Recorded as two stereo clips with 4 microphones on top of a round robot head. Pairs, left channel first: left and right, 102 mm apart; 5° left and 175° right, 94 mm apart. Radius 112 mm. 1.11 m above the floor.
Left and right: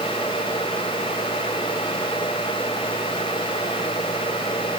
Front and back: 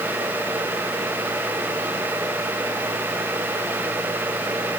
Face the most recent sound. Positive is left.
No sound to turn to.